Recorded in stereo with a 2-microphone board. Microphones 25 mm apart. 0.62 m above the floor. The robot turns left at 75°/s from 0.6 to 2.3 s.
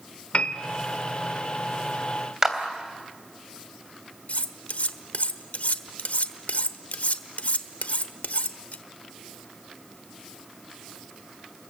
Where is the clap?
20° right (ahead or behind), 3 m.